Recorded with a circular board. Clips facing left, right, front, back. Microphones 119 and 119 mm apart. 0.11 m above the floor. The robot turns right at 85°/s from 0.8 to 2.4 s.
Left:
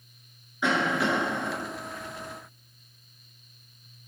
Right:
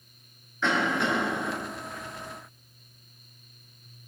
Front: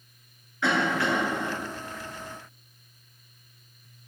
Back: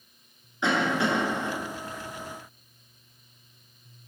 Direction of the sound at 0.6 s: 150° left.